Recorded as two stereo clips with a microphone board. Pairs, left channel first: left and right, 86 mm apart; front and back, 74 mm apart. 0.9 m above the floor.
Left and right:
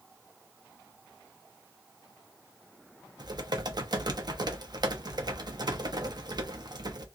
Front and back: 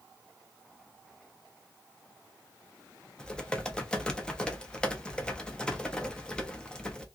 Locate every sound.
3.2 s typing on a keyboard: 75° right, 0.6 m